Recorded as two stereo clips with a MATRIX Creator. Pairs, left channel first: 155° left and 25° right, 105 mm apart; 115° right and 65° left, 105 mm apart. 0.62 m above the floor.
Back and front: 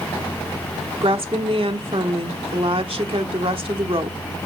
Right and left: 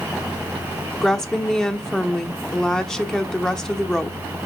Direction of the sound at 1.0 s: 30° right.